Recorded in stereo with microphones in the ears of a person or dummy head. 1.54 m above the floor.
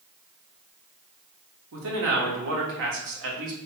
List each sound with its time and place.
1.7 s a man speaking: 70° right (ahead or behind), 0.9 m